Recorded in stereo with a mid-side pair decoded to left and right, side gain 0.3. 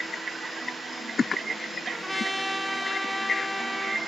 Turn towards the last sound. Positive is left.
turn(degrees=-5)